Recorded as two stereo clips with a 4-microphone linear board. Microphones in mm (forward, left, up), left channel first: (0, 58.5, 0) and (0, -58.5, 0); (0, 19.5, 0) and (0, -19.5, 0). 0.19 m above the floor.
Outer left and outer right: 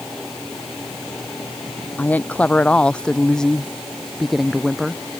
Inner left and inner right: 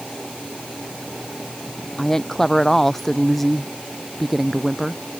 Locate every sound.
2.0 s a woman speaking: 15° left (ahead or behind); by 5.0 s 5° right (ahead or behind)